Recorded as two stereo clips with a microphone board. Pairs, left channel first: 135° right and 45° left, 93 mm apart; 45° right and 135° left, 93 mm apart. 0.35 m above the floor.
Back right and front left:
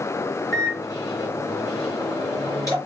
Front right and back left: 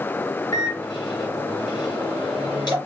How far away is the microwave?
About 4 m.